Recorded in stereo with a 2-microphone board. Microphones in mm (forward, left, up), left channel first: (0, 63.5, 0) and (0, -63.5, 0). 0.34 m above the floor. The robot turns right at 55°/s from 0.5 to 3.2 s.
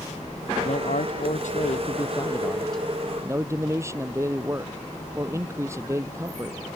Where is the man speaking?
60° left; by 6.6 s 160° right.